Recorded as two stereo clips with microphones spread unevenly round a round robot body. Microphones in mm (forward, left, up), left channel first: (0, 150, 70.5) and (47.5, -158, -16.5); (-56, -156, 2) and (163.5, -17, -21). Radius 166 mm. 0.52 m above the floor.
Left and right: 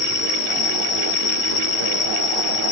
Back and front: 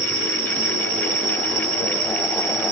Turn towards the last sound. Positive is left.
turn(degrees=70)